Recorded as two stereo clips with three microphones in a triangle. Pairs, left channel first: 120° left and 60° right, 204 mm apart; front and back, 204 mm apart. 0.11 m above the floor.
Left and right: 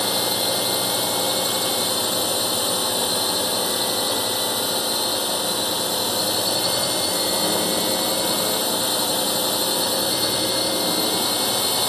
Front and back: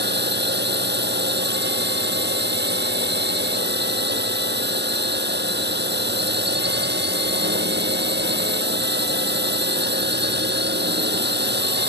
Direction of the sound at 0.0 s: 150° right.